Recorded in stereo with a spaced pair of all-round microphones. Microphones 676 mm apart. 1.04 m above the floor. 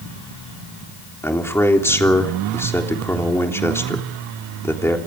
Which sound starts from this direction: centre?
A man speaking, at 1.2 s.